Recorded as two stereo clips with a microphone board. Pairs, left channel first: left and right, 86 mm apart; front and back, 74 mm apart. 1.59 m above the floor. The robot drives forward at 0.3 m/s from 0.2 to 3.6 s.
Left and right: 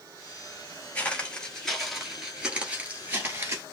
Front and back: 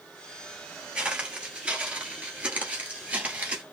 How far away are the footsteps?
About 1.6 m.